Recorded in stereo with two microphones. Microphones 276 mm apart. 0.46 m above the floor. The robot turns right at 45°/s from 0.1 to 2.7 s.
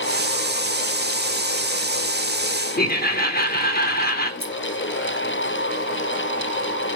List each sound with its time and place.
2.8 s laughter: 35° left (ahead or behind), 1.0 m
4.4 s scissors: 10° right (ahead or behind), 1.7 m